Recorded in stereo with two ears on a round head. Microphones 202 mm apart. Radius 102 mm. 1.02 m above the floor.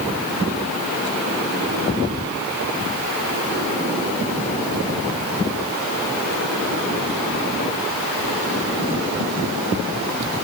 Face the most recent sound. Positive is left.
No sound to turn to.